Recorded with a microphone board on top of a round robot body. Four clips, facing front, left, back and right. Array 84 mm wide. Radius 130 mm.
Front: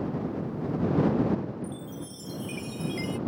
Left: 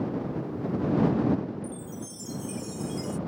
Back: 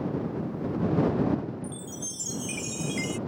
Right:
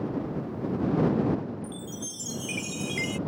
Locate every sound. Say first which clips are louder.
1.6 s a chime: even, front 1 dB; 105° right